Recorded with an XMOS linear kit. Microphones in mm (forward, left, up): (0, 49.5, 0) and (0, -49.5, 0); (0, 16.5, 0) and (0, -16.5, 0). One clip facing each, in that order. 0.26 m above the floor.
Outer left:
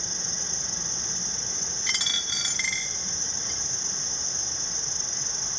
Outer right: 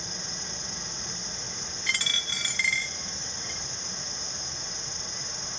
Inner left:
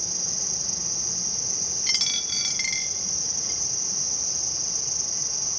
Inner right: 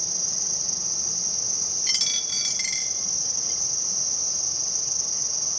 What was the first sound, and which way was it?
An insect, 30° left (ahead or behind).